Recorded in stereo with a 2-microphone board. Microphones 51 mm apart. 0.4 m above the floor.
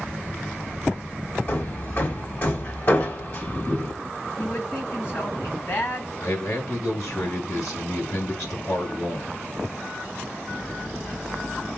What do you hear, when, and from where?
1.5 s hammering: 40° left (ahead or behind), 1.6 m
4.4 s a man speaking: 40° left (ahead or behind), 3.5 m
6.2 s a man speaking: 65° left (ahead or behind), 2.5 m